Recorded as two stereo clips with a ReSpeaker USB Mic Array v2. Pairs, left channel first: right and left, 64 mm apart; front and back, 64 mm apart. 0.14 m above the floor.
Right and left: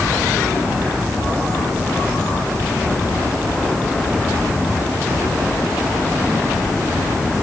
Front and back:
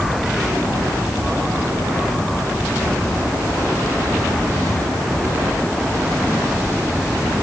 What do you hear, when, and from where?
Only background noise.